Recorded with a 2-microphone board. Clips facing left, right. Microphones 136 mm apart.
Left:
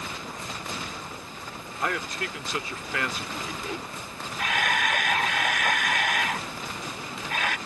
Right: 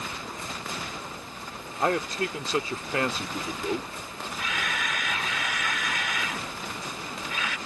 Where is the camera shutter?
60° left (ahead or behind).